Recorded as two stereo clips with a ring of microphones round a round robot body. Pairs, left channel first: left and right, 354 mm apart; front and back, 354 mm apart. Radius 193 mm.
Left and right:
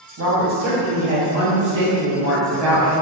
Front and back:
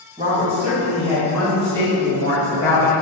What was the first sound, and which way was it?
A woman speaking, 115° right.